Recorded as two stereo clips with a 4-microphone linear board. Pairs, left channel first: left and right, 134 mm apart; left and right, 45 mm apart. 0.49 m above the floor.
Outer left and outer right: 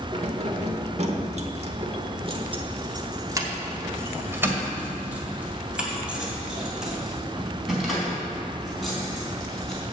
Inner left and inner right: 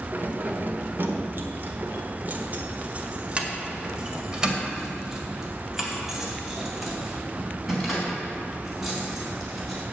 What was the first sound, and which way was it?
Keys jangling, 50° right (ahead or behind).